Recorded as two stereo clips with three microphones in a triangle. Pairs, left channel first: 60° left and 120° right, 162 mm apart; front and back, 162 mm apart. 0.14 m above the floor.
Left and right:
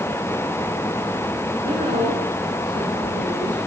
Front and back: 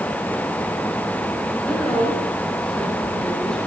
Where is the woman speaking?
85° right, 9 m.